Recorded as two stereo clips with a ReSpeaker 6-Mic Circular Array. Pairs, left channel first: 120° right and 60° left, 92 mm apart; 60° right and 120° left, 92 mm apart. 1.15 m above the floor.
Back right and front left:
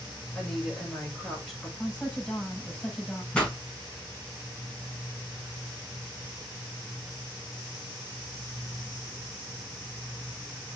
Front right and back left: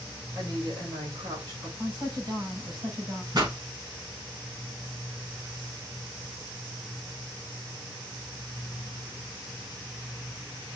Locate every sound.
0.3 s a woman speaking: 155° left, 6.5 m
1.8 s a woman speaking: 160° left, 6 m
3.3 s a pop: 160° left, 5 m